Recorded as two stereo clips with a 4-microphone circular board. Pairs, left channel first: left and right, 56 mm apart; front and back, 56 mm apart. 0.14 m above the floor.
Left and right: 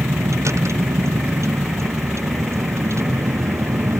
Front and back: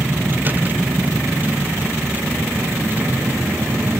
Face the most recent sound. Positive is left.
turn(degrees=-125)